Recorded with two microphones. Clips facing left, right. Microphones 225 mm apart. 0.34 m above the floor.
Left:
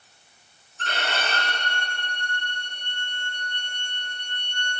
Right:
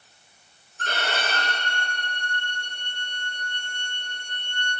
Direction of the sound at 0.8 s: 40° right (ahead or behind).